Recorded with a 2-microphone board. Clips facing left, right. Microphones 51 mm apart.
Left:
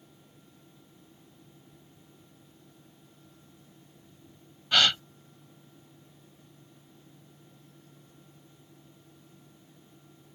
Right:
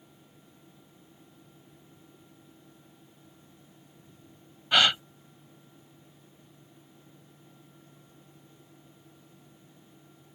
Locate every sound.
4.7 s a gasp: 15° right (ahead or behind)